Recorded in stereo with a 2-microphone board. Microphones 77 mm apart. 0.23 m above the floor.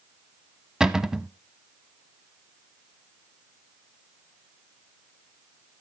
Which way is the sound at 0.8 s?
10° right (ahead or behind).